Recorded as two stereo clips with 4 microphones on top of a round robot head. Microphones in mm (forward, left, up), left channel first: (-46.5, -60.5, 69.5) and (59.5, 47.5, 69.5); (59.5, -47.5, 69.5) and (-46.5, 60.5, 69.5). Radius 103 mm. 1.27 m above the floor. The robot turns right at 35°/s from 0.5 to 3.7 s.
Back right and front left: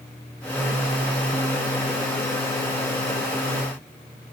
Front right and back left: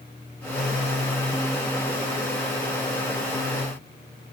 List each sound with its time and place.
Only background noise.